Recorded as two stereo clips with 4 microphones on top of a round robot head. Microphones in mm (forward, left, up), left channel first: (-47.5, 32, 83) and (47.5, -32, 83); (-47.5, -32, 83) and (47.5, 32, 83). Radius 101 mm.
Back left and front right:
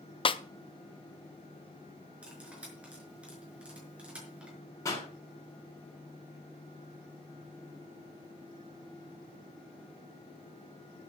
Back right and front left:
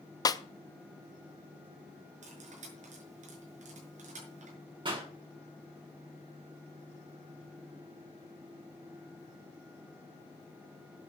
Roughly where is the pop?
Left.